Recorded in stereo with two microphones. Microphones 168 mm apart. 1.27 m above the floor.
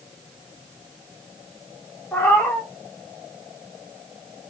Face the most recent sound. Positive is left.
turn(degrees=10)  # may be behind; listen again after turning